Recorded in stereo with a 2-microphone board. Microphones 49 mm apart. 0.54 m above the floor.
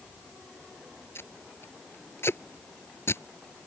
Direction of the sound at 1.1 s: 70° left (ahead or behind).